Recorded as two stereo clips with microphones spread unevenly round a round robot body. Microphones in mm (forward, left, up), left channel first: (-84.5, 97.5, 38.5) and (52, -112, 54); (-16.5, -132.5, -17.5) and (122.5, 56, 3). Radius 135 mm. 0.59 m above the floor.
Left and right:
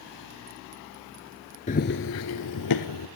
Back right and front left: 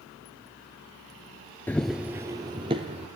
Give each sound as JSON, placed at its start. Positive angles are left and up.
{"t": 1.7, "sound": "running footsteps", "azimuth_deg": 150, "distance_m": 0.5}